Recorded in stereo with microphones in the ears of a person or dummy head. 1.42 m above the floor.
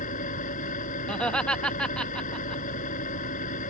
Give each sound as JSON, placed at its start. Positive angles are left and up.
{"t": 0.0, "sound": "an engine running", "side_deg": 45}
{"t": 1.1, "sound": "laughter", "side_deg": 5}